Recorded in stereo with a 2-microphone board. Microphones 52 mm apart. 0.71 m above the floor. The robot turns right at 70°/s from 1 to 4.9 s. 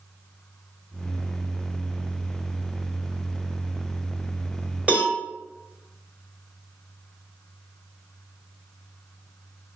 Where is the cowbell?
30° right (ahead or behind), 1.4 m.